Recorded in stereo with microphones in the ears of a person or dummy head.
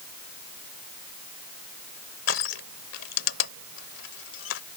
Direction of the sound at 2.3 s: 75° left (ahead or behind).